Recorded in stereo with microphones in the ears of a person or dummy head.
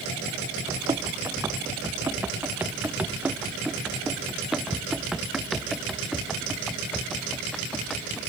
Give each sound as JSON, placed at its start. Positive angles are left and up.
{"t": 0.7, "sound": "running footsteps", "side_deg": -15}